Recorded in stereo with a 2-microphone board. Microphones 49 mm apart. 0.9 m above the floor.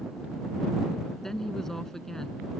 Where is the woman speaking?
10° left (ahead or behind).